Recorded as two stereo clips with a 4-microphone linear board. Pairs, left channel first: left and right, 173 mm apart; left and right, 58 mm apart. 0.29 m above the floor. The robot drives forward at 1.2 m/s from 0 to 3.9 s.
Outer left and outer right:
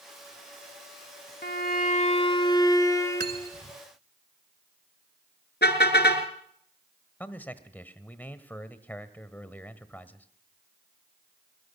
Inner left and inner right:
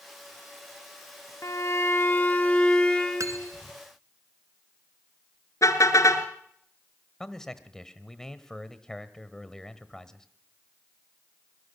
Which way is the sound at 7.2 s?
10° left (ahead or behind).